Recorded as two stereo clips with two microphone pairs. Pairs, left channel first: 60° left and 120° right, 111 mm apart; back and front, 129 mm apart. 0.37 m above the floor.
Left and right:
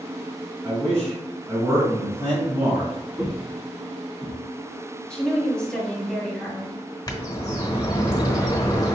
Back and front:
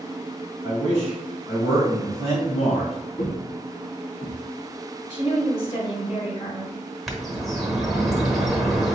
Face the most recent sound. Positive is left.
turn(degrees=90)